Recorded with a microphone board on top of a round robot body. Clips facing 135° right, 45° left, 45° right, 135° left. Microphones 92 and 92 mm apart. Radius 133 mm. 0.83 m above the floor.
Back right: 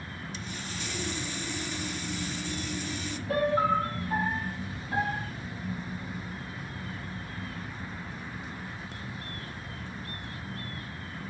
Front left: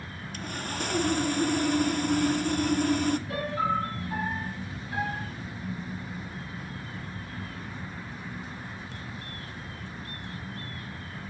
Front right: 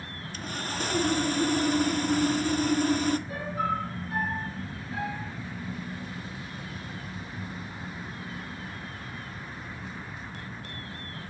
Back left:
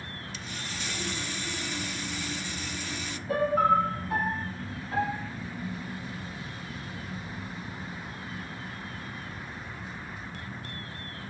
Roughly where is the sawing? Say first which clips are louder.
Front left 8 dB, front right 8 dB; ahead.